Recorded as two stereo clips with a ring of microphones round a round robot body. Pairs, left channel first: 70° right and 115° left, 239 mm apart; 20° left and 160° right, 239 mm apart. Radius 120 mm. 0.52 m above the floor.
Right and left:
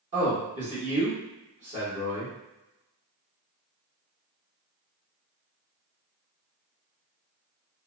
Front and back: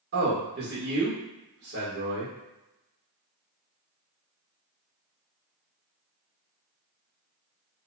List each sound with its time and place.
0.1 s a man speaking: 165° left, 1.2 m